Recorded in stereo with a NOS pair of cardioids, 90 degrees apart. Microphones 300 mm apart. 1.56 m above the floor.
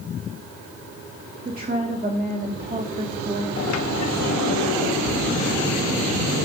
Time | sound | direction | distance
1.4 | a woman speaking | 30° right | 1.9 m
3.6 | a sliding door | 60° left | 1.0 m